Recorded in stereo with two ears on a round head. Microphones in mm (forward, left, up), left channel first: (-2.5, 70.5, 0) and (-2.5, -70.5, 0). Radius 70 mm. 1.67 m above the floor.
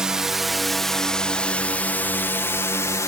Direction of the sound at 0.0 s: 5° right (ahead or behind).